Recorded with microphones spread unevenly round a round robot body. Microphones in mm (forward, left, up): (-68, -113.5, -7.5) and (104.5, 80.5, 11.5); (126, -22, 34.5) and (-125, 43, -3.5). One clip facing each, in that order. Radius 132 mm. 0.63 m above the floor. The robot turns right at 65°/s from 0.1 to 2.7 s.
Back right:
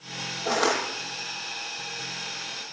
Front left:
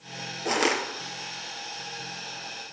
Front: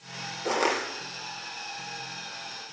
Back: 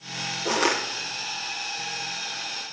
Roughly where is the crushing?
Left.